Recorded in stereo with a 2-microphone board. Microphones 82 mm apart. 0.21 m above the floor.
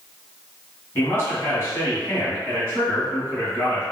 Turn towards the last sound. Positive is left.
turn(degrees=25)  # may be behind; listen again after turning